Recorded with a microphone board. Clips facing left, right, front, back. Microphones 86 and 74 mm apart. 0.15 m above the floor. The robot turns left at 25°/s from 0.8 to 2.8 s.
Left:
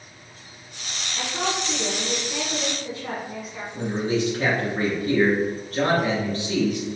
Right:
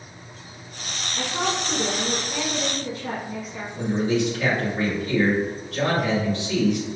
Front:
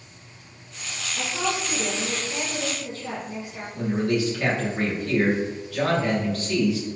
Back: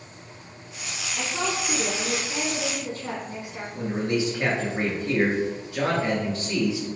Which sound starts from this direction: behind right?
A woman speaking, at 1.1 s.